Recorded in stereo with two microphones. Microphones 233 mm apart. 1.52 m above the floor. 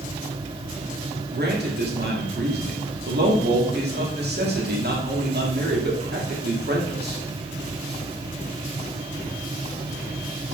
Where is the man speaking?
45° right (ahead or behind), 0.9 m.